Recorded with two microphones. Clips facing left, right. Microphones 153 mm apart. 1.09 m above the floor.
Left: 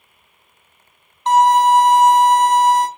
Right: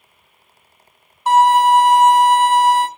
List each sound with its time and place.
1.3 s a violin: 10° right (ahead or behind), 0.8 m